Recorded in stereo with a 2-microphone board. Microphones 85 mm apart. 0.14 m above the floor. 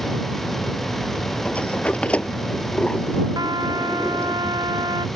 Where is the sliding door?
15° left (ahead or behind).